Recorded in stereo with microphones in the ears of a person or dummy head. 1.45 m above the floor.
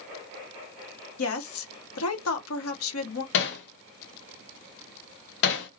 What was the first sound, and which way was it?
A woman speaking, 80° left.